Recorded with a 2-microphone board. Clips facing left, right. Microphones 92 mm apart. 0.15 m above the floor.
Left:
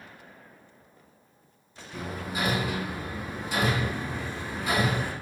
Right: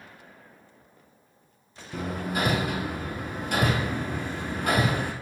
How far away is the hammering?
About 0.9 m.